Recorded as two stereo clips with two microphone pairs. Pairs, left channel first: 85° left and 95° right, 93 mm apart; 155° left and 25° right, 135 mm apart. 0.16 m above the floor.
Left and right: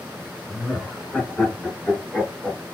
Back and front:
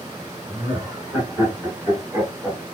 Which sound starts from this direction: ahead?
Laughter, at 0.5 s.